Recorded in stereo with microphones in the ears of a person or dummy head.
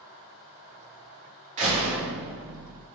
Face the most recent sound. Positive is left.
turn(degrees=-35)  # may be behind; listen again after turning